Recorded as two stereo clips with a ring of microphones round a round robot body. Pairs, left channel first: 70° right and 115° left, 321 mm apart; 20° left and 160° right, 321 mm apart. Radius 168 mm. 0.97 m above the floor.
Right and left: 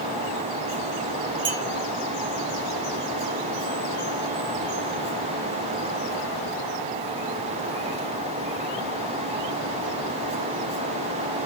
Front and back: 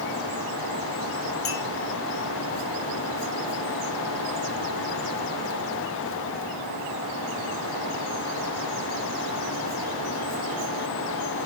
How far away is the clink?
About 5 m.